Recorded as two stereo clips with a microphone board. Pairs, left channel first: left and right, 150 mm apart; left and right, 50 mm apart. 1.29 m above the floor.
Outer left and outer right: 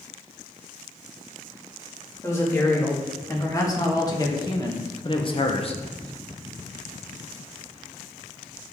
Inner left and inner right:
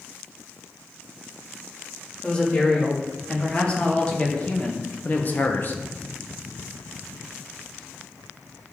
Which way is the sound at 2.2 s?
20° left (ahead or behind).